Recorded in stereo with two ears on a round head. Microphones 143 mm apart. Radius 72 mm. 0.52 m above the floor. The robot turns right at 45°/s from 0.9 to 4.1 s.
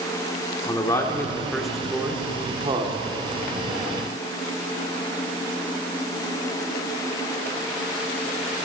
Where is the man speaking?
20° left (ahead or behind), 1.5 m; by 3.0 s 35° right (ahead or behind), 1.5 m.